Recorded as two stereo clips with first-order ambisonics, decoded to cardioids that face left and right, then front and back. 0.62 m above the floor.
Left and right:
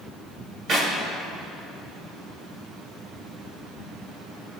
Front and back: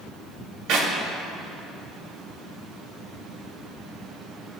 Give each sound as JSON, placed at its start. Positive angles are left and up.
{"t": 0.7, "sound": "a clap", "azimuth_deg": -145, "distance_m": 3.0}